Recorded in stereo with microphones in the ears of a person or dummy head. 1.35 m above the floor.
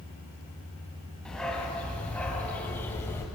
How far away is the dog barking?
About 3.5 m.